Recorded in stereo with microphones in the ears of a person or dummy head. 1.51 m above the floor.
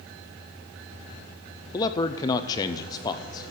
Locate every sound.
1.7 s a man speaking: 20° left (ahead or behind), 0.7 m